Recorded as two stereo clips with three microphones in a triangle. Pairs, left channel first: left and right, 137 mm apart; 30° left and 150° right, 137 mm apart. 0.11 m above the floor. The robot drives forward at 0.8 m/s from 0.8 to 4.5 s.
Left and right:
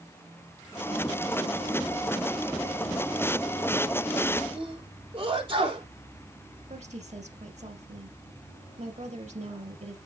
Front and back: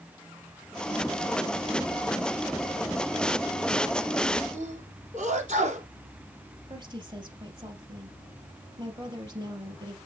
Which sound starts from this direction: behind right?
A sneeze, at 4.5 s.